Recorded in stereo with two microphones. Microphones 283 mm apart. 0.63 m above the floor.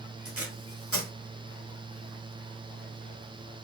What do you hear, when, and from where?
0.2 s tape being pulled: 55° right (ahead or behind), 1.1 m